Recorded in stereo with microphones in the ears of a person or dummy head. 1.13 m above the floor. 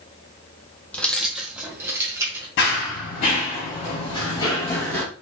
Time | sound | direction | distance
0.9 | keys jangling | 10° left (ahead or behind) | 0.7 m
2.6 | running footsteps | 50° left (ahead or behind) | 1.6 m